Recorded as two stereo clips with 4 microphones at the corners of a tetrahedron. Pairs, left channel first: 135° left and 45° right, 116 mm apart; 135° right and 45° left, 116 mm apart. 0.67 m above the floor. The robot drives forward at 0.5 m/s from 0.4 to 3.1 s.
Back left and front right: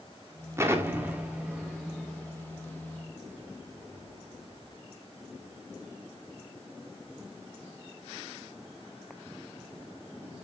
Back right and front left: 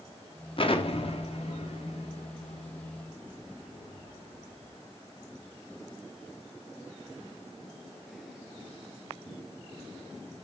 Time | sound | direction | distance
0.6 | an explosion | 105° right | 1.3 m